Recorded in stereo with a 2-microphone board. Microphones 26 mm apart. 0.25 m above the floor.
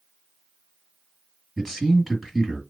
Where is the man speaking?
5° left (ahead or behind), 2 m.